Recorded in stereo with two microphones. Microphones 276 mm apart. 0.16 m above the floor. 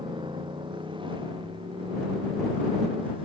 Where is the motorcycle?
15° right (ahead or behind); by 3.3 s 20° right (ahead or behind).